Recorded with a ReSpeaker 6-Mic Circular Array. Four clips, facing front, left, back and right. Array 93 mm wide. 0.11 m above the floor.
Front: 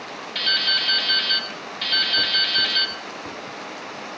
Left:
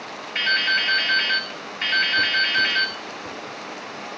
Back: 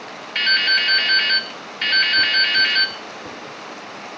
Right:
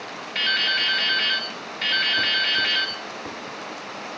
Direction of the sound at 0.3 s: 165° left.